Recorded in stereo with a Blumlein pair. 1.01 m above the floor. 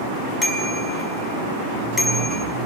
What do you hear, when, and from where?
0.4 s a bicycle bell: 15° left, 6 m